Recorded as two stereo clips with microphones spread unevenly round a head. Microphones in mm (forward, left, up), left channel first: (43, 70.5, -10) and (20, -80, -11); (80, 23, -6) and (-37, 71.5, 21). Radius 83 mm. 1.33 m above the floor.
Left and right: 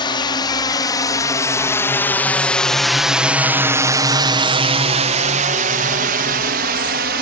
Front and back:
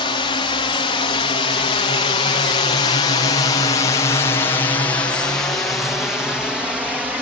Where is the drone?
25° left; by 7.2 s 115° right.